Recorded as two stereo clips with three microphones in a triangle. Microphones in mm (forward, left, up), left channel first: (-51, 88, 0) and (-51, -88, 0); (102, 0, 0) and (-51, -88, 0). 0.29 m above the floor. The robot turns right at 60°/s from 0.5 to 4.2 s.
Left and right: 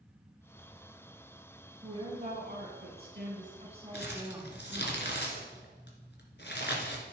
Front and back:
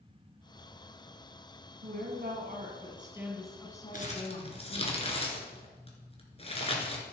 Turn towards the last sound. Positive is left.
turn(degrees=85)